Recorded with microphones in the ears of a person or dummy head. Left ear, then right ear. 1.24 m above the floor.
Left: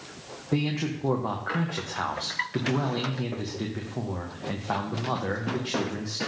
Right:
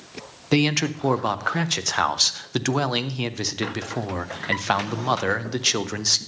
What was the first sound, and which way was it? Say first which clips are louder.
A man speaking: right 8 dB; 75° right (ahead or behind).